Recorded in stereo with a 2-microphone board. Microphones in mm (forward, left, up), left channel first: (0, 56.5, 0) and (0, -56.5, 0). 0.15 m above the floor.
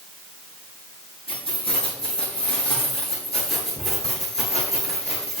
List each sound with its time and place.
1.3 s keys jangling: 55° left (ahead or behind), 6.5 m; by 5.4 s 75° left (ahead or behind), 7 m